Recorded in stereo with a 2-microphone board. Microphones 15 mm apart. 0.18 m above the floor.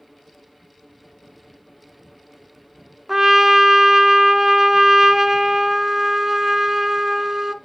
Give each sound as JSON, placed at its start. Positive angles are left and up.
{"t": 3.1, "sound": "a trumpet", "side_deg": -35, "distance_m": 0.5}